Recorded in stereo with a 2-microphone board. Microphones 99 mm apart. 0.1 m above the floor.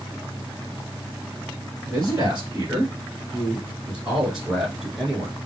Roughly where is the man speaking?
Right.